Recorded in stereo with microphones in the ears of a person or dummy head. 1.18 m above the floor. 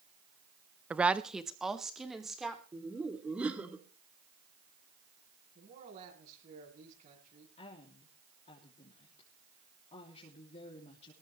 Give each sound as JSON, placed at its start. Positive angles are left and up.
{"t": 0.9, "sound": "a woman speaking", "side_deg": -5, "distance_m": 0.5}
{"t": 2.7, "sound": "laughter", "side_deg": -5, "distance_m": 3.0}
{"t": 5.5, "sound": "a man speaking", "side_deg": -45, "distance_m": 9.0}
{"t": 7.6, "sound": "a woman speaking", "side_deg": 35, "distance_m": 3.0}